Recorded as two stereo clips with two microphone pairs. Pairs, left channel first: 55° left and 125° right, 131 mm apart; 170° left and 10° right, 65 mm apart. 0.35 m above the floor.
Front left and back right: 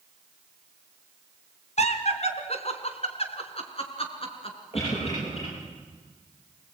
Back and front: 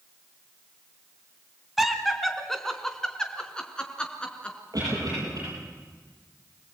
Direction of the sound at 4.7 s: 15° left.